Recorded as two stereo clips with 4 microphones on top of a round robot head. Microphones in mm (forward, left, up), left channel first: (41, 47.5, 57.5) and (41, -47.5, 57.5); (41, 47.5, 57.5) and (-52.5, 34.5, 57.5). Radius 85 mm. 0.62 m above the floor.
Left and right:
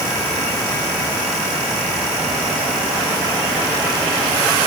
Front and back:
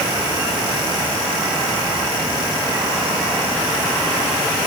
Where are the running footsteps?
I don't hear running footsteps.